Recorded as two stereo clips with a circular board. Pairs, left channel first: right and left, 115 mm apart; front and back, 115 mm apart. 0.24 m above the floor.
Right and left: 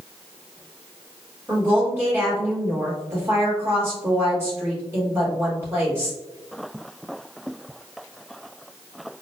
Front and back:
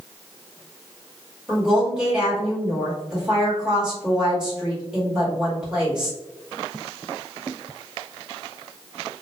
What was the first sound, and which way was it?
A woman speaking, 110° left.